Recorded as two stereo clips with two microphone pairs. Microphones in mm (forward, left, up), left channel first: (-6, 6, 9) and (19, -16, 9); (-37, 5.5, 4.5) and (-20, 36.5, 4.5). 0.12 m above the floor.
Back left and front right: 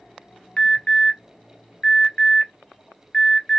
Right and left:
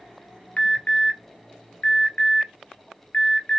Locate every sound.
0.6 s an alarm: 160° right, 1.6 m